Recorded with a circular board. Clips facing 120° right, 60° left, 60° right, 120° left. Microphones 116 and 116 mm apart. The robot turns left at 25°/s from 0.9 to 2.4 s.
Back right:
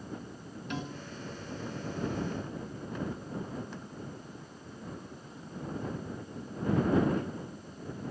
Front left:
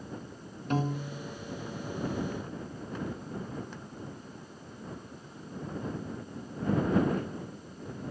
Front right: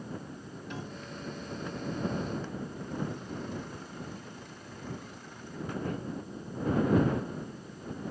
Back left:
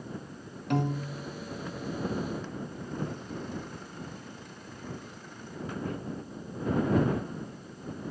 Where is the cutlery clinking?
No cutlery clinking in this recording.